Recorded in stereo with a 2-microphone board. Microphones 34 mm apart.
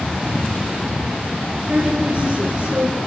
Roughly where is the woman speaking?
Right.